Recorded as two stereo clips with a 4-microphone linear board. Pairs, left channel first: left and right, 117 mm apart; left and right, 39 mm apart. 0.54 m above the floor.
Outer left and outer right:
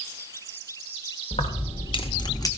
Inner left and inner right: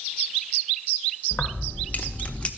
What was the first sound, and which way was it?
Keys jangling, 60° left (ahead or behind).